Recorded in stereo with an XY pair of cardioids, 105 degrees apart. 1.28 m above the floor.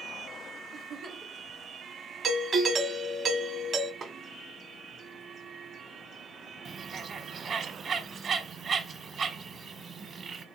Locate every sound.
0.7 s a giggle: 45° right, 0.6 m
2.2 s a doorbell: 50° right, 0.8 m
4.0 s a snare drum: 50° right, 0.9 m
6.7 s a bird: 50° right, 0.9 m